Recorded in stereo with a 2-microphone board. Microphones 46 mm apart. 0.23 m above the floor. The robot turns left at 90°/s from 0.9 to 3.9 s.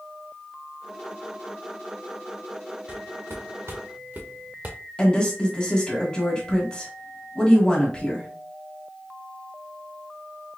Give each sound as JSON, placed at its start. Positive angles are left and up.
{"t": 2.9, "sound": "footsteps", "side_deg": -25, "distance_m": 1.8}
{"t": 5.0, "sound": "a woman speaking", "side_deg": 20, "distance_m": 1.8}